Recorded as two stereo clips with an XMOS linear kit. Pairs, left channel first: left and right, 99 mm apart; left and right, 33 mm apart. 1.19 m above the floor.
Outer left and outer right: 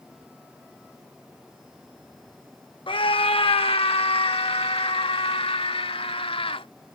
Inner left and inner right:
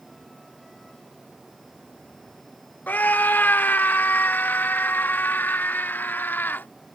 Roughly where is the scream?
Left.